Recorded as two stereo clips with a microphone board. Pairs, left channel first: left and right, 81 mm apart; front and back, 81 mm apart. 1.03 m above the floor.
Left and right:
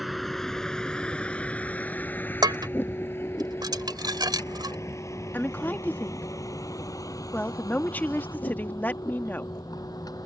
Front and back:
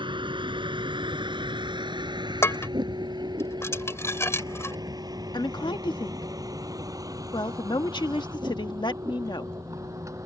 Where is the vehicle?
Straight behind; by 10.3 s 130° left.